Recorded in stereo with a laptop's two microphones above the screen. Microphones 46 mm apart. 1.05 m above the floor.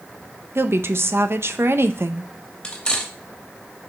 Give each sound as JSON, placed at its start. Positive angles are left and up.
{"t": 0.6, "sound": "a woman speaking", "side_deg": -60, "distance_m": 0.7}
{"t": 2.6, "sound": "cutlery clinking", "side_deg": 20, "distance_m": 2.0}